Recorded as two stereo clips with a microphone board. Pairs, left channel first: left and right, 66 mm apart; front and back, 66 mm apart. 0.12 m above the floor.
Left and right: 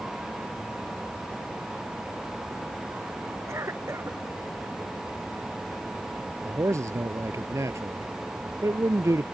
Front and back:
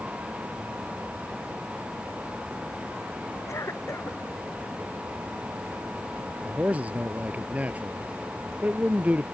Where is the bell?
I don't hear a bell.